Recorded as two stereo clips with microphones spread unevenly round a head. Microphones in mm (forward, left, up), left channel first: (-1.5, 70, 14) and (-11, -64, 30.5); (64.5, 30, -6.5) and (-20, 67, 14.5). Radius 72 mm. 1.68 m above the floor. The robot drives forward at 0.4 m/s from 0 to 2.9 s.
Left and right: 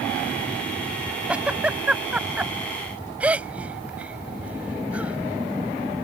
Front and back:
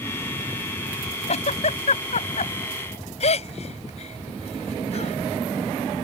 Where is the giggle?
10° right; by 5.2 s 15° right.